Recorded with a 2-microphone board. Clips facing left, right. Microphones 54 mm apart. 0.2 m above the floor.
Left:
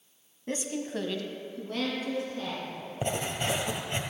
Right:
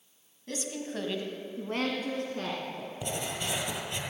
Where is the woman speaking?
30° left (ahead or behind), 1.2 m; by 2.9 s 60° right (ahead or behind), 2.5 m.